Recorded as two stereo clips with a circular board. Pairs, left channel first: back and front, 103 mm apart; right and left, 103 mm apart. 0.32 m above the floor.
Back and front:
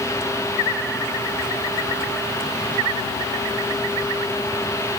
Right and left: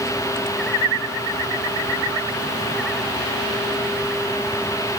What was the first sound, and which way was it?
Only background noise.